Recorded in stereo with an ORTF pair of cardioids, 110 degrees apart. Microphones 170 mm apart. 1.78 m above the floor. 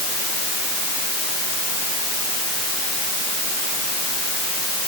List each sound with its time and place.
Only background noise.